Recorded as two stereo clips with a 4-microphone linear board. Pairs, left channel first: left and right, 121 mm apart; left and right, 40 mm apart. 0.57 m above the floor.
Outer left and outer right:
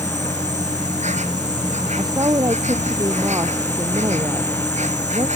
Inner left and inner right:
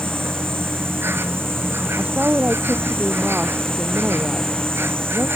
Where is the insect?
80° right.